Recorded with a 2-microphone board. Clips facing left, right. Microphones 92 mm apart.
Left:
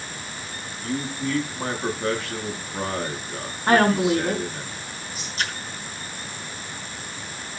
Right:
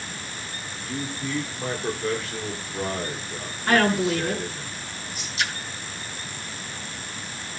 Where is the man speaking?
65° left (ahead or behind), 9.5 m.